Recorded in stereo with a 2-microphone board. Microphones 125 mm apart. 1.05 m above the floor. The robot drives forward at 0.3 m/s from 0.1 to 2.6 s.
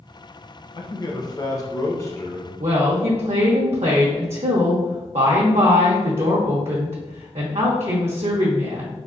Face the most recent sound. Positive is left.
turn(degrees=-65)  # may be behind; listen again after turning